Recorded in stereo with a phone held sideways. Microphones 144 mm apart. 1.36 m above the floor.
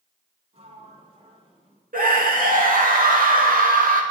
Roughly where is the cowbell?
I don't hear a cowbell.